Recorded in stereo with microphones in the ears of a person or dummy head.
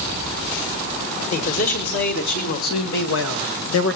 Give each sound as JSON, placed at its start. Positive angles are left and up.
{"t": 1.3, "sound": "a man speaking", "side_deg": 50, "distance_m": 2.5}